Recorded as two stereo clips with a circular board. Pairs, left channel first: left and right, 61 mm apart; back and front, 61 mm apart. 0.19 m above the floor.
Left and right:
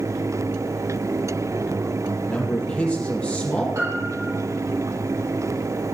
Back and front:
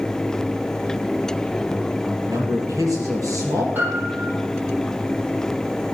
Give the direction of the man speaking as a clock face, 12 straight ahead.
11 o'clock.